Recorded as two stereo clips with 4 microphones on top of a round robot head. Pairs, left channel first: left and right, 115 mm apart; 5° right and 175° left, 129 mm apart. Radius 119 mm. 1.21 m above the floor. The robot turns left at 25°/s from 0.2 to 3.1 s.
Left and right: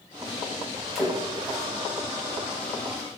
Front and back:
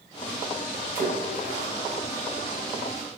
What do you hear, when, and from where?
0.9 s a splash: straight behind, 1.5 m; by 1.7 s 165° left, 1.5 m